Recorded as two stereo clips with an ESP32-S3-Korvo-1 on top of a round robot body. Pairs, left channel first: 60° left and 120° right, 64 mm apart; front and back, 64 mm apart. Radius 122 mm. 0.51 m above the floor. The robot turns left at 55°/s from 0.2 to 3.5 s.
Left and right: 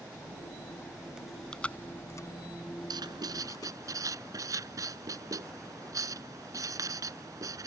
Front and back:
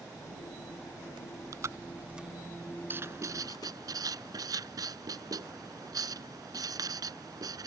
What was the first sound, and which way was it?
Chewing, 160° left.